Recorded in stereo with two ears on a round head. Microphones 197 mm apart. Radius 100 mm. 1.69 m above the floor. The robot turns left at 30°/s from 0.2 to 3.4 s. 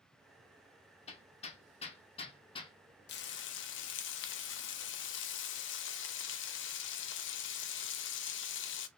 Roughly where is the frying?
Left.